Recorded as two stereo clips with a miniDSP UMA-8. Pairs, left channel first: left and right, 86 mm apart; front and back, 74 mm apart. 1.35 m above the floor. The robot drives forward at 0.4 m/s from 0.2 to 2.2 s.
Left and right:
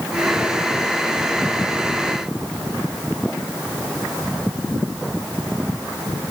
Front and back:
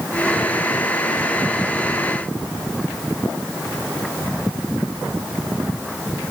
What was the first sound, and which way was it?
Only background noise.